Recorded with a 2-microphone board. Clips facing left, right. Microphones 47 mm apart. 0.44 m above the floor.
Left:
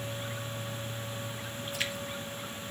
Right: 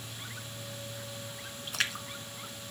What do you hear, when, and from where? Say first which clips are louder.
1.7 s a splash: right 2 dB; 75° right (ahead or behind), 1.6 m